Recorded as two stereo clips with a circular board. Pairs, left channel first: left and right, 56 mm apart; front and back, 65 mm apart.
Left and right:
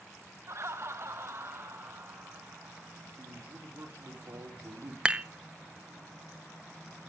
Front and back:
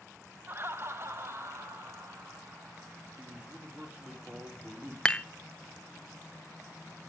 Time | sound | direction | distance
0.5 | laughter | 125° right | 0.7 m
3.2 | a man speaking | 115° right | 4 m
5.0 | dishes clattering | 50° right | 0.7 m